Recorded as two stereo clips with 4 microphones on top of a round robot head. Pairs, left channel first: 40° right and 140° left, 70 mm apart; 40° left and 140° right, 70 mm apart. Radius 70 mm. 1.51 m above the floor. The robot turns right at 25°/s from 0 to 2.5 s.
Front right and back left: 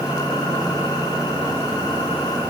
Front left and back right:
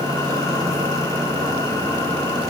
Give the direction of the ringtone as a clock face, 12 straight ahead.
I don't hear a ringtone.